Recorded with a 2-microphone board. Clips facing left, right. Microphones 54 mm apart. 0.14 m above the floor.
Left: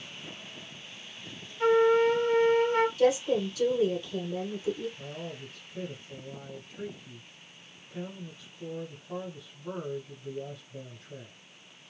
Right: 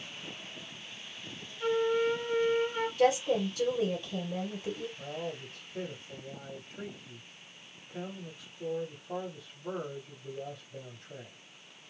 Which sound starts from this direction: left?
A flute, at 1.6 s.